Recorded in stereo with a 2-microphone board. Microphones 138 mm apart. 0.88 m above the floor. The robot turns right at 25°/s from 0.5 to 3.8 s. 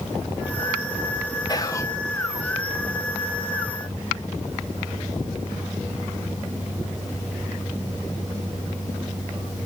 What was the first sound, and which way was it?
Whispering, 30° left (ahead or behind).